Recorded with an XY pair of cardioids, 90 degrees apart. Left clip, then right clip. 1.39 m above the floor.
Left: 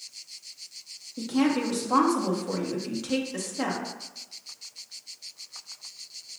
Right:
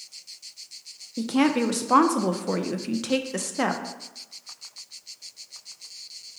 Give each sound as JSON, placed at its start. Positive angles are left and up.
{"t": 1.2, "sound": "a woman speaking", "azimuth_deg": -60, "distance_m": 0.5}